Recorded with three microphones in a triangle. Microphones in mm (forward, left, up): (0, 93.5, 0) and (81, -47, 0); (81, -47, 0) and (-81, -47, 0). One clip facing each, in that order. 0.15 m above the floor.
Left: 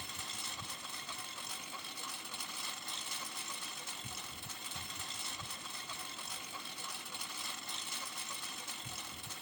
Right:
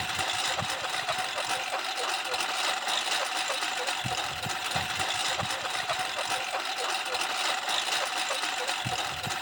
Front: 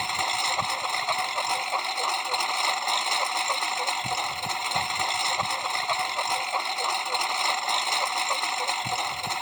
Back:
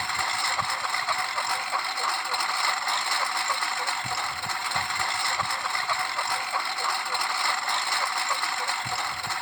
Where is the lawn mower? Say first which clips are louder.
Right 16 dB, front 2 dB; 70° right.